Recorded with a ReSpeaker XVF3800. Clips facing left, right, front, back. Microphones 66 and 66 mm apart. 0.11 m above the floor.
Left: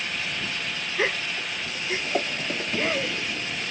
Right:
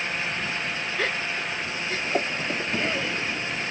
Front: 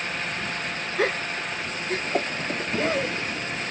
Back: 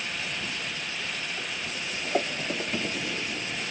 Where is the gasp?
20° left.